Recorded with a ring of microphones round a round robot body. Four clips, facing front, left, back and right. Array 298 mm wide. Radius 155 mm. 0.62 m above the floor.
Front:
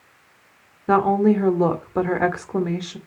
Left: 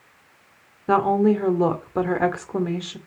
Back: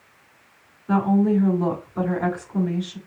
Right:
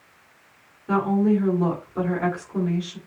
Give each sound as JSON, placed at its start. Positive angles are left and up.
{"t": 0.9, "sound": "a woman speaking", "azimuth_deg": 35, "distance_m": 1.8}